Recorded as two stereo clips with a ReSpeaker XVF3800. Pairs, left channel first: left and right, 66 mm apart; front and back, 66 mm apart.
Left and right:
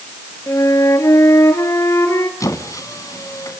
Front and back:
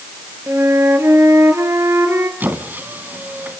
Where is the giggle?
No giggle in this recording.